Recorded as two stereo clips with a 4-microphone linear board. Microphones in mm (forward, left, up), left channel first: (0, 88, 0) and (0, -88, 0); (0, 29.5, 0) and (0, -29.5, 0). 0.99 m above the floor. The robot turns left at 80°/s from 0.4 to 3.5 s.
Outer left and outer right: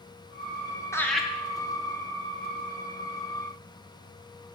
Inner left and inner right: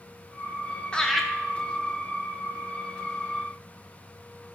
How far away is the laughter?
About 0.6 m.